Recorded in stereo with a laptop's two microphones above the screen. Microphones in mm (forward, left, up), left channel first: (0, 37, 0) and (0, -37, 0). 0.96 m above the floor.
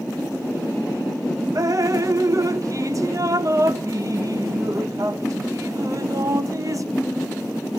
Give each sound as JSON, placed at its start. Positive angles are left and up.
{"t": 1.6, "sound": "dripping", "side_deg": -50, "distance_m": 0.7}